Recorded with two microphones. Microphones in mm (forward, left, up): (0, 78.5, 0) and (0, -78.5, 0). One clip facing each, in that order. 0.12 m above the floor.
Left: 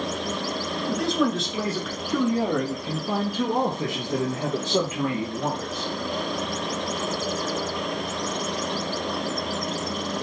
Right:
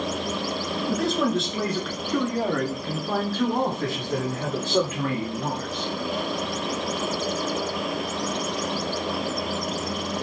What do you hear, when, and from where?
0.9 s a man speaking: 5° right (ahead or behind), 1.5 m; by 5.9 s 20° left (ahead or behind), 2 m